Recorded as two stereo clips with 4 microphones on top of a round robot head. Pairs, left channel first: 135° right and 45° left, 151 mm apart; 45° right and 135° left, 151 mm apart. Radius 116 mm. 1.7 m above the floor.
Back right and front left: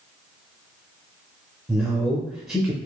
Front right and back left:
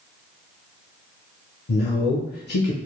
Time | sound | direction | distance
1.7 | a man speaking | 40° right | 0.5 m